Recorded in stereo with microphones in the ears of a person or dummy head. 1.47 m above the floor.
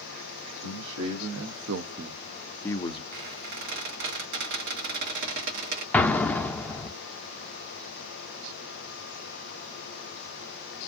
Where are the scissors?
I don't hear scissors.